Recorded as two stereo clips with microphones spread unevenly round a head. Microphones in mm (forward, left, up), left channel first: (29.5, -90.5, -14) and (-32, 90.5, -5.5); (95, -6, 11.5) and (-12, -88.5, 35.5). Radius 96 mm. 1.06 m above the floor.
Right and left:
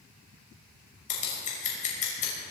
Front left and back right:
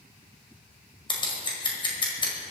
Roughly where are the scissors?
Ahead.